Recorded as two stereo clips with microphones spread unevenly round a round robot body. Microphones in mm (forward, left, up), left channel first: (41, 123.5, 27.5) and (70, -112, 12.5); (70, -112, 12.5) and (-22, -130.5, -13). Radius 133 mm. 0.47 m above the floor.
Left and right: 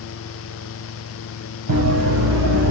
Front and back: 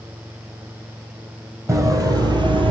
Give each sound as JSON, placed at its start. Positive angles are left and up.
{"t": 1.7, "sound": "running footsteps", "azimuth_deg": -105, "distance_m": 1.1}